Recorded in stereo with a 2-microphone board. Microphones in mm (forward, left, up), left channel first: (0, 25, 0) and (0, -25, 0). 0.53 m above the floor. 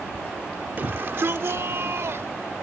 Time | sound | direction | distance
0.8 | a shout | 45° right (ahead or behind) | ?